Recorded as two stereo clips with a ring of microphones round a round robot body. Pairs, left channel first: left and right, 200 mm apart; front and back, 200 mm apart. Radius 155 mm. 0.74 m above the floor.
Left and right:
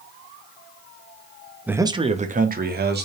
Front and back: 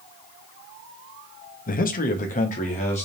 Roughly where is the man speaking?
Ahead.